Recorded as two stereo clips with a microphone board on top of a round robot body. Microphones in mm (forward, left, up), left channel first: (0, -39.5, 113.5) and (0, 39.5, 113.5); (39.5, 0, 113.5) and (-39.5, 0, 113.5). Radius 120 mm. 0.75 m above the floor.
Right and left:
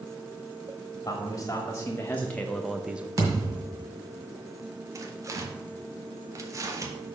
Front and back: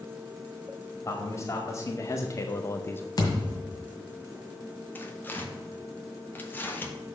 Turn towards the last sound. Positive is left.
turn(degrees=60)